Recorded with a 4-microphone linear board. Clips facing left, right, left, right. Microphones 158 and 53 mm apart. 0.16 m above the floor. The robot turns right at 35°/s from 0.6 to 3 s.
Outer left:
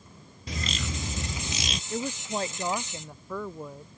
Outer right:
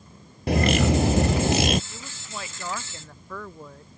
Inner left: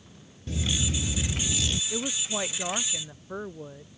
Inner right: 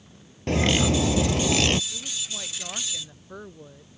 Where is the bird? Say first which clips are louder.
Outer right 15 dB, inner right 10 dB; 105° right; by 1.8 s 65° right.